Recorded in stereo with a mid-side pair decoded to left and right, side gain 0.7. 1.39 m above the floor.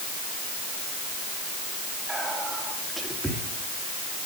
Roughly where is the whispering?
Ahead.